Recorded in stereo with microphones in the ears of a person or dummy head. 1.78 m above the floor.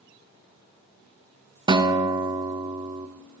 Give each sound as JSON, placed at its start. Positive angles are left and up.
{"t": 1.7, "sound": "a guitar", "side_deg": -30, "distance_m": 0.9}